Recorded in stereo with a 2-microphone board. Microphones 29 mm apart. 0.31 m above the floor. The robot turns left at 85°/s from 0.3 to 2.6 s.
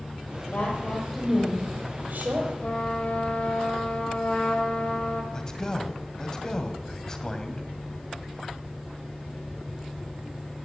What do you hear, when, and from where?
0.5 s a woman speaking: 55° left, 8 m; by 2.5 s 115° right, 8 m
2.6 s a trumpet: 50° left (ahead or behind), 3.5 m
5.3 s a man speaking: 25° left (ahead or behind), 2 m